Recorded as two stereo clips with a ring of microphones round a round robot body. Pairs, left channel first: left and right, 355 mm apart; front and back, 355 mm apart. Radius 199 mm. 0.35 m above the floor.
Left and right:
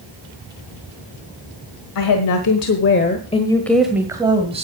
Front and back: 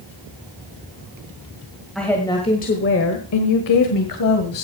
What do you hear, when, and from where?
1.9 s a woman speaking: 90° left, 1.6 m; by 4.6 s 20° right, 2 m